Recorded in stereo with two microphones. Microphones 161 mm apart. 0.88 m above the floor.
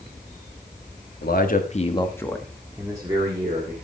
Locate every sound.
1.2 s a man speaking: 70° left (ahead or behind), 1.5 m; by 3.7 s 35° right (ahead or behind), 2.5 m